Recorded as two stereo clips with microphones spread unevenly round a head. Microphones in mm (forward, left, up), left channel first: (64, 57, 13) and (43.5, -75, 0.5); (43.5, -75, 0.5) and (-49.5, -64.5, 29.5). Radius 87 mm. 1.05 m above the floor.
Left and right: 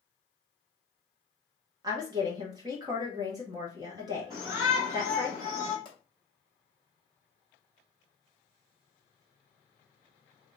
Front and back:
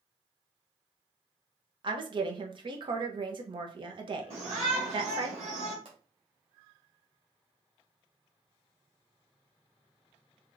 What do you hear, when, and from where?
1.8 s a woman speaking: 150° right, 0.9 m
4.3 s a shout: 175° left, 1.7 m
5.8 s a pop: 145° left, 0.9 m